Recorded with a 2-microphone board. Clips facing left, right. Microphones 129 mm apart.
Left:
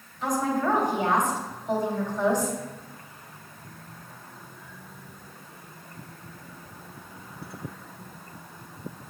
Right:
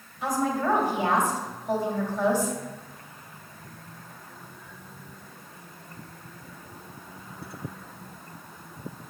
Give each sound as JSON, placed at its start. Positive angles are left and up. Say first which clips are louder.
{"t": 0.2, "sound": "a woman speaking", "louder": "even", "side_deg": -10, "distance_m": 1.7}